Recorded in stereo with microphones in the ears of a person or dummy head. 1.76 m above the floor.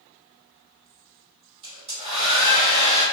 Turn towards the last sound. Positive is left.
turn(degrees=-30)  # may be behind; listen again after turning